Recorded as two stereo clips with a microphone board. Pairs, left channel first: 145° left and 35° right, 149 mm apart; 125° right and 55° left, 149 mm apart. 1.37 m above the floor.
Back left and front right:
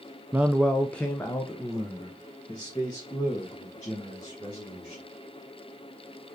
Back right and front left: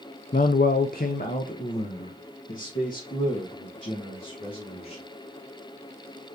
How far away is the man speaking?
About 0.5 m.